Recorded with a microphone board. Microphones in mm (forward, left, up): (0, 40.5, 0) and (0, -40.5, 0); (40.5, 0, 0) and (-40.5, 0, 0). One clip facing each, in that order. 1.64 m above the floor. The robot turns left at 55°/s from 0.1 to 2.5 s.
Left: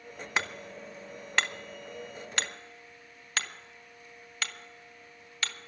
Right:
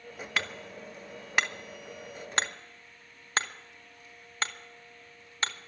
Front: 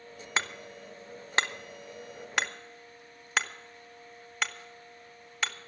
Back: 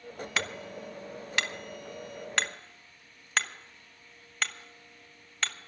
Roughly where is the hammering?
Ahead left.